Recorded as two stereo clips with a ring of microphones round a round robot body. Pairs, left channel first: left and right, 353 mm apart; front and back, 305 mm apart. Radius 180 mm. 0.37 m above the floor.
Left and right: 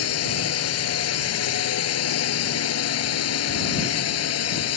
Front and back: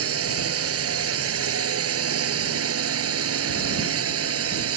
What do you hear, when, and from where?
0.0 s a drone: 140° left